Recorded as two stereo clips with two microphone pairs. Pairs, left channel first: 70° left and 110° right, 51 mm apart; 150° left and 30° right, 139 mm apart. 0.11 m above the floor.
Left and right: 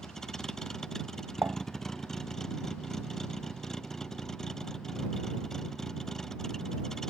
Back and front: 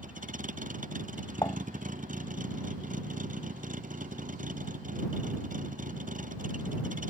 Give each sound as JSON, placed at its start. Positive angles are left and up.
{"t": 0.0, "sound": "a vehicle", "azimuth_deg": -10}
{"t": 1.4, "sound": "dishes clattering", "azimuth_deg": -140}